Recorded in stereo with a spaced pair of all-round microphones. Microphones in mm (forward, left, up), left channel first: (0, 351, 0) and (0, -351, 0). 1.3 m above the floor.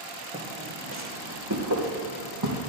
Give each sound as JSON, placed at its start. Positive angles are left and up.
{"t": 0.3, "sound": "footsteps", "side_deg": -10, "distance_m": 3.0}